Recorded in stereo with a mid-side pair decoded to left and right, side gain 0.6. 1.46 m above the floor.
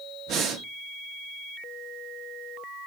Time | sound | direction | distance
0.3 | breathing | 60° right | 1.9 m